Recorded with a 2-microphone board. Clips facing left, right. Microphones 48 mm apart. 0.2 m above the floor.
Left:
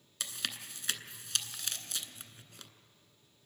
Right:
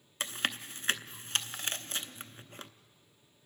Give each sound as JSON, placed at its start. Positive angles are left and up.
{"t": 0.2, "sound": "chewing", "side_deg": -40, "distance_m": 0.7}